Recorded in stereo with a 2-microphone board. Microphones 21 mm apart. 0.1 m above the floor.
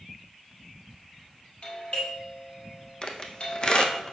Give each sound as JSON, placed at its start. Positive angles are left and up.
{"t": 1.6, "sound": "a doorbell", "side_deg": 60, "distance_m": 3.0}
{"t": 3.0, "sound": "a squeak", "side_deg": 45, "distance_m": 1.2}